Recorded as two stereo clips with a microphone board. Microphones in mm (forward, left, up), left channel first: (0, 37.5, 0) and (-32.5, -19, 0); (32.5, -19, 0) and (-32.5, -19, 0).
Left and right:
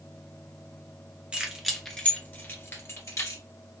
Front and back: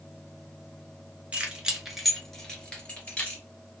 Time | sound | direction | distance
1.3 | keys jangling | 160° right | 1.1 m